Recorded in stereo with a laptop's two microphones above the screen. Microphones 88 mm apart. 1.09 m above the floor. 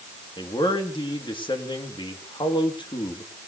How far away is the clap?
No clap in this recording.